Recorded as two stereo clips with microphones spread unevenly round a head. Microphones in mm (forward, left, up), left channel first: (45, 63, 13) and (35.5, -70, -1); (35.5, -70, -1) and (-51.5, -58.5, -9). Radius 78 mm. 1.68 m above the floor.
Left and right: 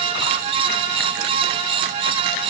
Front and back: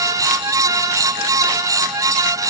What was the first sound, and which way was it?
Only background noise.